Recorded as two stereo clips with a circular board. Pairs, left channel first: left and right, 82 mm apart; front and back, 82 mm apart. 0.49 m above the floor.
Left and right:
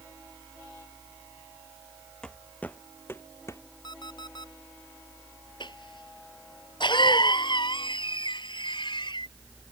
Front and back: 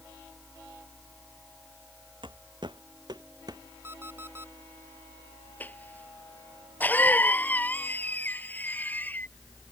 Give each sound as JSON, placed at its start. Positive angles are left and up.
{"t": 2.2, "sound": "footsteps", "azimuth_deg": 170}
{"t": 3.8, "sound": "an alarm clock", "azimuth_deg": 120}
{"t": 5.6, "sound": "a cough", "azimuth_deg": 70}